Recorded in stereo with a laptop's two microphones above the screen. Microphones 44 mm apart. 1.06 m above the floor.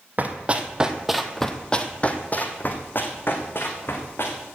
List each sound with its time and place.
0.2 s running footsteps: 40° right (ahead or behind), 1.8 m; by 4.4 s 65° left (ahead or behind), 4 m